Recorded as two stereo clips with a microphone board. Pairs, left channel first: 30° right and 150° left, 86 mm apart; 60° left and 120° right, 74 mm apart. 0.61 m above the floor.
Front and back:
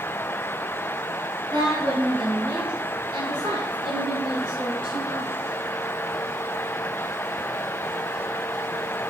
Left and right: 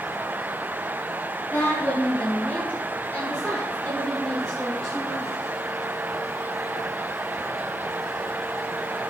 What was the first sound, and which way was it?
A woman speaking, 120° left.